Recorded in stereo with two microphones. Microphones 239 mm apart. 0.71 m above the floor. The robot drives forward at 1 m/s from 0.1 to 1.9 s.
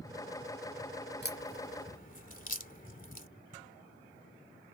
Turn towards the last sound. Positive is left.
turn(degrees=35)  # may be behind; listen again after turning